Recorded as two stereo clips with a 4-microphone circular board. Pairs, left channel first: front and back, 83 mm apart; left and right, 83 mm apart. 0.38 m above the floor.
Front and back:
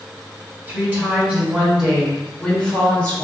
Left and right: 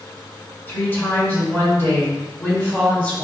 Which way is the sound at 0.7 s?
130° left.